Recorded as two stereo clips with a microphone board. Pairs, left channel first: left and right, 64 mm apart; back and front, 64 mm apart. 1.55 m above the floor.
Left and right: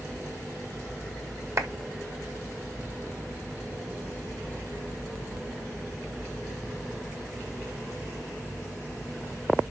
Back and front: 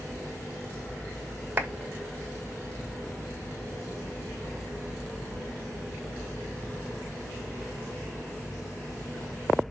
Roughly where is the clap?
Ahead right.